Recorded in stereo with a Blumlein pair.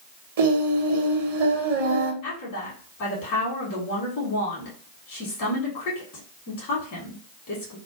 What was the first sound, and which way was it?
Singing, 55° right.